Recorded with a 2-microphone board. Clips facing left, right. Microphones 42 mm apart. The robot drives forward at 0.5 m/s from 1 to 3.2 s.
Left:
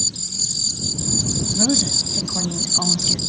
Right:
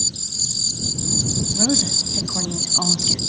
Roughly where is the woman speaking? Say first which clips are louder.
Left 1 dB; centre.